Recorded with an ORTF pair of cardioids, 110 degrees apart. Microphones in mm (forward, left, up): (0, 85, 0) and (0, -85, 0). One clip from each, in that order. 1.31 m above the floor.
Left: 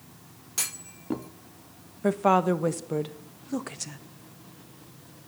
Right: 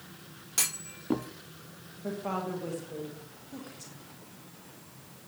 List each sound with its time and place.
0.6 s a clunk: 5° right, 0.7 m
2.0 s a woman speaking: 70° left, 1.1 m